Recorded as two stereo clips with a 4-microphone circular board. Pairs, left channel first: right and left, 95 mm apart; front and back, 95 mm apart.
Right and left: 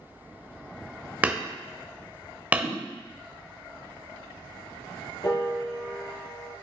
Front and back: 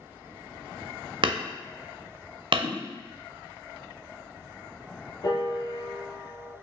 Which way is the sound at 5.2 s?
45° right.